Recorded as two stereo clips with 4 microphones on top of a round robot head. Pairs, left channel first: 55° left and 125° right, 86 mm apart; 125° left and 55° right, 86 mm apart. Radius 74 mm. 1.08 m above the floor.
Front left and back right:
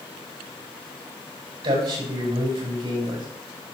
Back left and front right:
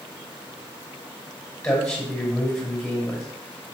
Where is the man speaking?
150° right, 6 m.